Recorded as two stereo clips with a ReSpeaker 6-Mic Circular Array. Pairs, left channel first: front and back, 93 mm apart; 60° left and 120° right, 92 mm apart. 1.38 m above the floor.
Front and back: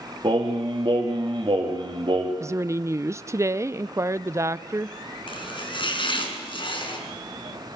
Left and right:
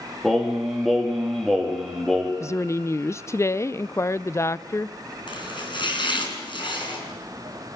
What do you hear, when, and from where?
0.2 s singing: 150° left, 3 m
2.4 s a woman speaking: 120° left, 0.5 m
5.3 s chopping: 25° left, 4.5 m